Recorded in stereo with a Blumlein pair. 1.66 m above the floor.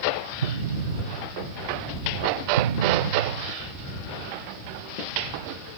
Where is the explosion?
70° right.